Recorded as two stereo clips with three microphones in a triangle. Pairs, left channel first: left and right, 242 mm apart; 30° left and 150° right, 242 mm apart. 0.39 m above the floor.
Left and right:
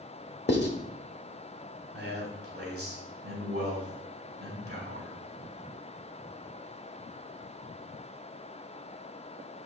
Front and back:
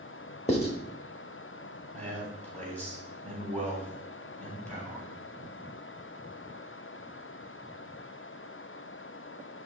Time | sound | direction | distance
0.5 | writing | 80° left | 1.0 m
1.9 | a man speaking | 50° right | 3.5 m